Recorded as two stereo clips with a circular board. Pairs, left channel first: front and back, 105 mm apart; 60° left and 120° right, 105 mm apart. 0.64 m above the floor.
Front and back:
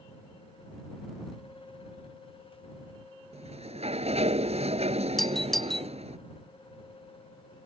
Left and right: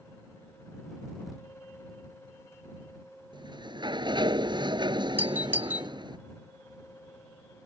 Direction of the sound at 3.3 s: 165° right.